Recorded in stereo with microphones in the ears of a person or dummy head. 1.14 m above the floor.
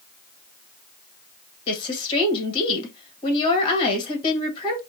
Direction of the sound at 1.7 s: 25° left (ahead or behind).